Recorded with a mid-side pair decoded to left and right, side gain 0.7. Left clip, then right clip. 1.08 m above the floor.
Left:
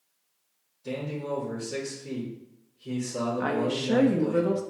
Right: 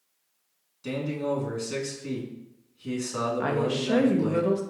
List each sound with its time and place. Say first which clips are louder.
0.8 s a man speaking: right 3 dB; 65° right, 2 m
3.4 s a woman speaking: left 1 dB; straight ahead, 0.8 m